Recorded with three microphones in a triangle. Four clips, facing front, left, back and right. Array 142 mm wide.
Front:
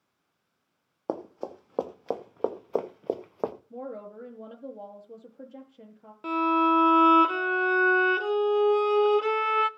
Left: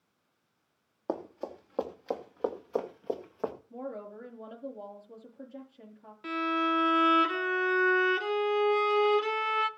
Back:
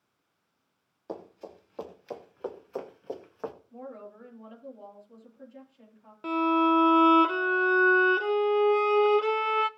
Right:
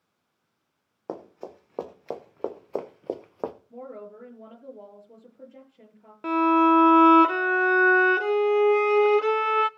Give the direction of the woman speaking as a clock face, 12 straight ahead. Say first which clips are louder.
Even, front 5 dB; 12 o'clock.